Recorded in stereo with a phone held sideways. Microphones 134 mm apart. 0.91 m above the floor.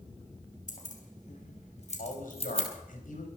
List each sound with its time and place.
0.7 s keys jangling: 75° left (ahead or behind), 3 m; by 2.7 s 45° left (ahead or behind), 3 m
2.0 s a man speaking: 85° left, 4.5 m